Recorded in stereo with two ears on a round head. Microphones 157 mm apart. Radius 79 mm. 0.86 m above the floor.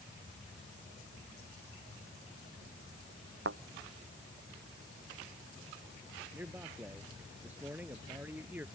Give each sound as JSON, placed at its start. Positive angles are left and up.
{"t": 3.5, "sound": "a thud", "side_deg": -65}
{"t": 6.3, "sound": "a man speaking", "side_deg": -10}